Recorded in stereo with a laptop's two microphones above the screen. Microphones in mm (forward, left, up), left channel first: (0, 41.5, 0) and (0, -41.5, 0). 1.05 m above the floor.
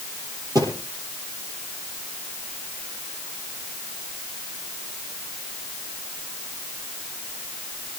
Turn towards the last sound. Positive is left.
turn(degrees=-45)  # may be behind; listen again after turning